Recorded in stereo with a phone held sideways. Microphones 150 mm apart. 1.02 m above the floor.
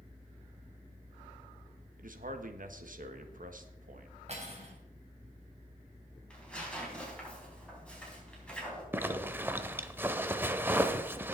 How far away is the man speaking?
About 1.3 m.